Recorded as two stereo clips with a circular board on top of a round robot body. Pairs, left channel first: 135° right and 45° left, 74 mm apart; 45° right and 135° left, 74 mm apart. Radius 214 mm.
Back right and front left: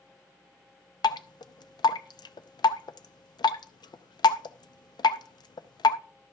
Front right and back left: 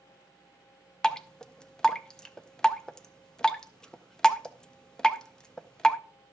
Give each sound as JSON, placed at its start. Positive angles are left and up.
{"t": 1.0, "sound": "dripping", "azimuth_deg": -125, "distance_m": 0.6}